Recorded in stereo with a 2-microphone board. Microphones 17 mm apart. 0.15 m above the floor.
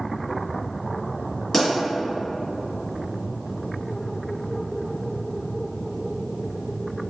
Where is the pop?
20° left (ahead or behind), 1.9 m.